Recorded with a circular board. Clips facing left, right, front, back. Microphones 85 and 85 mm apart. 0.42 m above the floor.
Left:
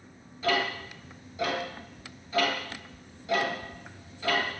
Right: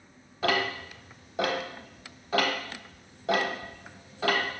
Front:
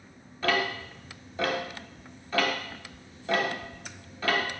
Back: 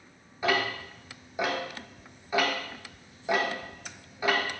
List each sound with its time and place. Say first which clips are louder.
0.4 s ticking: even, even; 105° right, 0.9 m